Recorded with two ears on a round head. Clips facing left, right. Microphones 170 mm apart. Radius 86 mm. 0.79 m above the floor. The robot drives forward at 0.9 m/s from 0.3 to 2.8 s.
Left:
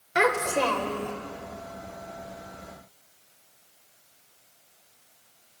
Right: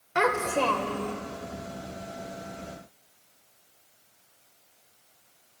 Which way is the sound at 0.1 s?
15° left (ahead or behind).